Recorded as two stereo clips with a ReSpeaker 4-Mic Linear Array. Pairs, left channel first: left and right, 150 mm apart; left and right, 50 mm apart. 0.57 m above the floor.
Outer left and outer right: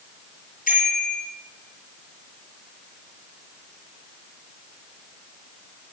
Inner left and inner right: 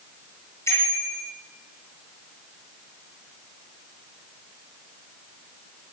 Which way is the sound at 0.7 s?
65° left (ahead or behind).